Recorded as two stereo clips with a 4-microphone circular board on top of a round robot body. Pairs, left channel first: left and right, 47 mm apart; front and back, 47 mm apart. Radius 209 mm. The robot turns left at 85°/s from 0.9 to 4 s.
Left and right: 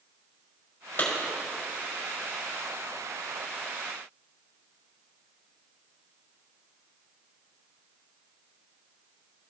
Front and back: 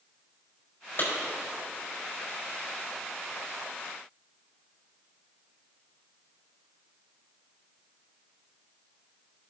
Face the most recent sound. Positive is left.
turn(degrees=145)